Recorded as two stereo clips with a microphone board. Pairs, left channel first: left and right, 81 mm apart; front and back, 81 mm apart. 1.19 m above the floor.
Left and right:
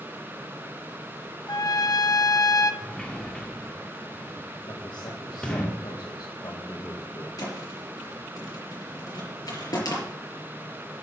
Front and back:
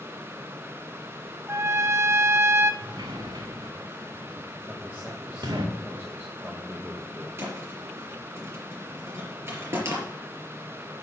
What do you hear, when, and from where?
1.5 s a trumpet: 125° left, 0.7 m
2.8 s a sliding door: 170° left, 1.7 m
4.7 s a man speaking: 115° left, 1.7 m
7.4 s a thud: 125° left, 4.5 m